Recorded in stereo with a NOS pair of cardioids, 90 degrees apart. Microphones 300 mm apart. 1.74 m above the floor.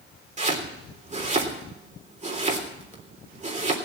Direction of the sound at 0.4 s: 25° right.